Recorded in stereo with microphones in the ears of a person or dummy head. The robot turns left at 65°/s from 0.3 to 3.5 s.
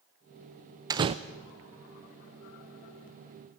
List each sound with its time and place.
0.9 s a door slam: 20° right (ahead or behind), 0.5 m; by 1.1 s 25° right (ahead or behind), 0.5 m